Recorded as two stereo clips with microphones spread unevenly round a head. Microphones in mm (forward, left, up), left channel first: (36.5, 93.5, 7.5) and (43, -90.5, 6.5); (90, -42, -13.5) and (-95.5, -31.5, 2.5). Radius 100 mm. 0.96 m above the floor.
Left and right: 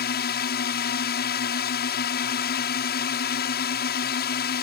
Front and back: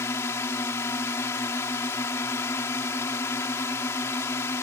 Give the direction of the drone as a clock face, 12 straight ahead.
10 o'clock.